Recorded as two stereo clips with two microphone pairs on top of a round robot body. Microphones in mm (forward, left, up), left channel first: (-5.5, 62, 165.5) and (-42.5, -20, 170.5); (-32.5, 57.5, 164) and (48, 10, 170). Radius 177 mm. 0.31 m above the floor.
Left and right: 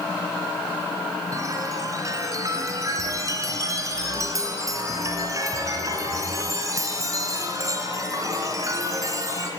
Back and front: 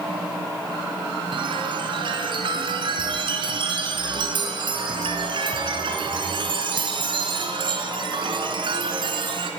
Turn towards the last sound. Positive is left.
turn(degrees=-60)